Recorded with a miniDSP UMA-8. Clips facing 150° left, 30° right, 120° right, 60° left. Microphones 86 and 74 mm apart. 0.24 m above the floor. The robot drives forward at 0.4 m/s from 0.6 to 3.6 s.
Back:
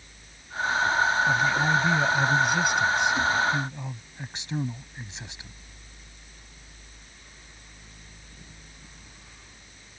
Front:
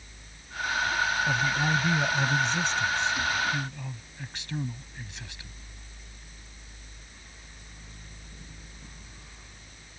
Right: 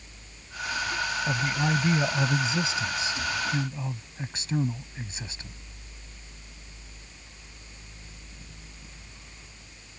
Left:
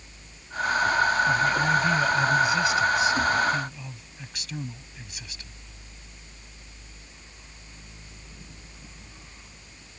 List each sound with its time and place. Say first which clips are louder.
1.3 s a man speaking: back 4 dB, left 5 dB; 115° right; by 5.6 s 155° right